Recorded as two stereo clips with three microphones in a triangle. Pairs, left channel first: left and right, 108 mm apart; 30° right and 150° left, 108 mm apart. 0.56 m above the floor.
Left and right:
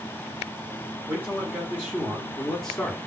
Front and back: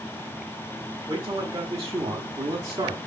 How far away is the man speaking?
About 1.8 m.